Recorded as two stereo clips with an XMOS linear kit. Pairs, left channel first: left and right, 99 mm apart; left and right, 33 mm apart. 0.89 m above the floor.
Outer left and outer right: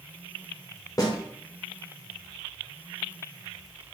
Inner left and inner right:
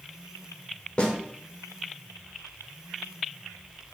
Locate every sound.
1.0 s a snare drum: 35° left (ahead or behind), 0.6 m